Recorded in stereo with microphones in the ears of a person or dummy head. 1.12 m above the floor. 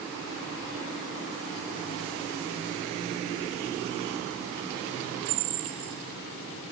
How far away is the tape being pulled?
I don't hear tape being pulled.